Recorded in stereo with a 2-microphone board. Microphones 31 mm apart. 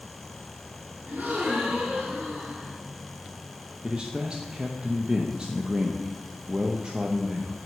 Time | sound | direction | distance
1.1 | a gasp | 75° right (ahead or behind) | 3.5 m
3.8 | a man speaking | 30° right (ahead or behind) | 0.8 m